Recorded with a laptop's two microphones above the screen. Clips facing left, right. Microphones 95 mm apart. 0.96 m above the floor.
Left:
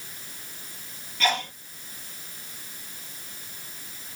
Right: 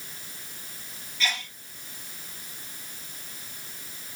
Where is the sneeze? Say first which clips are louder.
Left 7 dB; 55° left (ahead or behind).